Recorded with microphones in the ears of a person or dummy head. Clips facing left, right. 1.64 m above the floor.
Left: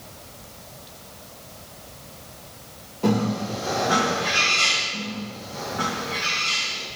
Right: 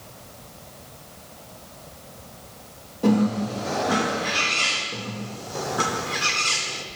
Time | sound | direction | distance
3.0 | a bird | 15° right (ahead or behind) | 2.5 m
4.9 | a bird | 75° right (ahead or behind) | 0.7 m